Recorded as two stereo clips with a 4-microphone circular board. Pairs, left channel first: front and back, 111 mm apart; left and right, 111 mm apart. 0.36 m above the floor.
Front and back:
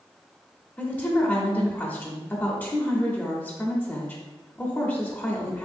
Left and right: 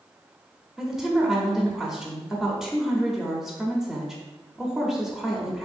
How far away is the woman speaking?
About 0.8 m.